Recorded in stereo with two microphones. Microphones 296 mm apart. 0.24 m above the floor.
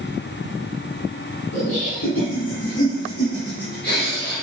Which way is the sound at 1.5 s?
60° left (ahead or behind).